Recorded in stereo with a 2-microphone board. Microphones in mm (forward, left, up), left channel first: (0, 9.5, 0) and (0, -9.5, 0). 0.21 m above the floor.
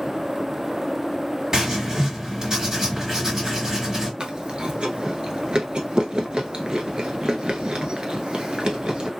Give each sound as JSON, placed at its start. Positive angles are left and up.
{"t": 1.5, "sound": "writing", "side_deg": -25, "distance_m": 1.9}
{"t": 4.2, "sound": "chewing", "side_deg": -45, "distance_m": 0.8}